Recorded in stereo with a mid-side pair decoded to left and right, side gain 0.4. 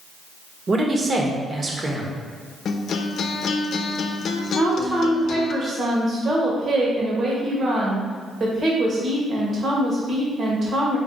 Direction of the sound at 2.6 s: 65° left.